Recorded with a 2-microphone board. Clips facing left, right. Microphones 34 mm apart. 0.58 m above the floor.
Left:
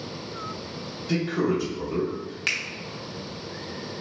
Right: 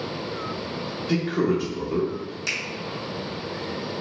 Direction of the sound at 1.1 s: 15° right (ahead or behind).